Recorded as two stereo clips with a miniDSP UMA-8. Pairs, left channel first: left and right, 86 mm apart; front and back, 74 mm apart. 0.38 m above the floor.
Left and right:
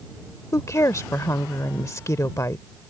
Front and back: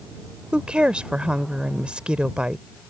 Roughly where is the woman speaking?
Behind left.